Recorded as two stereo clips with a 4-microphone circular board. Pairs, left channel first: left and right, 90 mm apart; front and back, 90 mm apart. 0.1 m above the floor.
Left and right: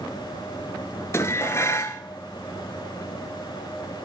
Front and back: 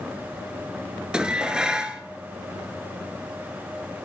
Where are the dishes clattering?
110° left, 1.1 m.